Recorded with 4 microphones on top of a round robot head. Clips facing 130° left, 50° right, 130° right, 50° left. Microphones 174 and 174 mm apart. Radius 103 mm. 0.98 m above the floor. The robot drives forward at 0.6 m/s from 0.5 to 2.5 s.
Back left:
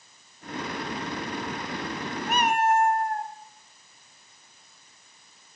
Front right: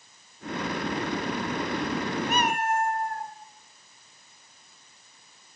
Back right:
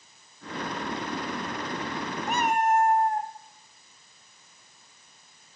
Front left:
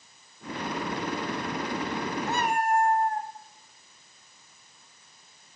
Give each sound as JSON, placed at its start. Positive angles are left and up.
{"t": 2.3, "sound": "a cat meowing", "azimuth_deg": -55, "distance_m": 1.3}